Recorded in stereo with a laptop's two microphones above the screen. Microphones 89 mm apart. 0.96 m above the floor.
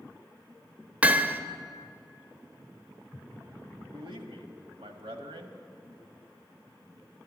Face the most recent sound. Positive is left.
turn(degrees=-75)  # may be behind; listen again after turning